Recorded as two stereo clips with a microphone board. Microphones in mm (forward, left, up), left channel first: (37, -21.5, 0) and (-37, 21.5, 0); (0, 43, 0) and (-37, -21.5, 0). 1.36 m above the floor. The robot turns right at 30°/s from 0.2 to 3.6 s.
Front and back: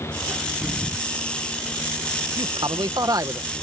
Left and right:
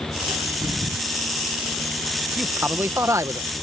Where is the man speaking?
170° left; by 3.5 s 155° right.